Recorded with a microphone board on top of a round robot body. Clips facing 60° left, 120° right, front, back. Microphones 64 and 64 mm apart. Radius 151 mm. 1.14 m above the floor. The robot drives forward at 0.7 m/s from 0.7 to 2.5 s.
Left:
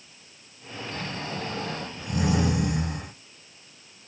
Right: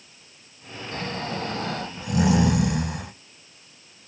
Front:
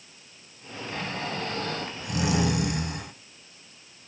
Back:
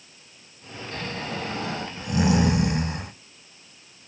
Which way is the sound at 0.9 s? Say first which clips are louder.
Right 4 dB, even; 80° right.